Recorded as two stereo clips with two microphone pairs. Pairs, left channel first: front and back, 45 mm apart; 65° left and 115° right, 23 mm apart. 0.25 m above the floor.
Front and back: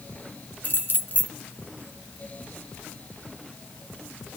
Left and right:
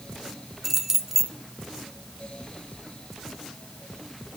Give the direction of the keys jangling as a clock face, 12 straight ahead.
1 o'clock.